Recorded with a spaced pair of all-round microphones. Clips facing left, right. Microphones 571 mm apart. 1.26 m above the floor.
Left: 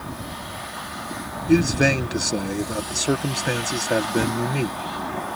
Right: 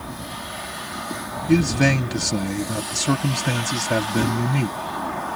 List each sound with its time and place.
1.5 s a man speaking: 25° right (ahead or behind)